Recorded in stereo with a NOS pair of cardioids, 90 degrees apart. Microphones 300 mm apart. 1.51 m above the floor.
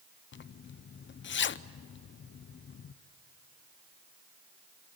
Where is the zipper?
40° left, 0.7 m.